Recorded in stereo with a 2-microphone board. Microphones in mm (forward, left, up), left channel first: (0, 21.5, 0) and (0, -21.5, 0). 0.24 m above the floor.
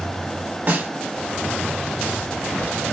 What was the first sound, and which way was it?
A snare drum, 35° right (ahead or behind).